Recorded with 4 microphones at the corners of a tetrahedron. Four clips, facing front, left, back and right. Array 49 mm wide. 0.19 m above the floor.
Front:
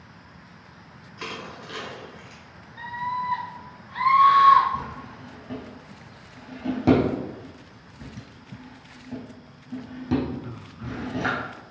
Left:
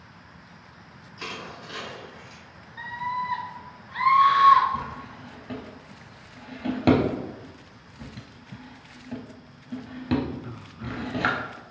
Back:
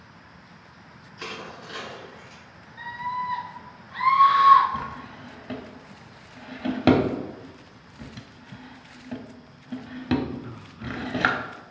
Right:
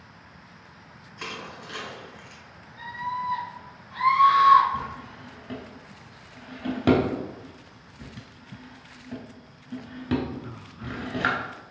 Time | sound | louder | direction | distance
1.2 | crushing | even, front 1 dB | 35° right | 1.8 m
2.8 | a scream | left 1 dB, front 1 dB | 45° left | 2.0 m
4.7 | a drawer | even, even | 175° left | 0.6 m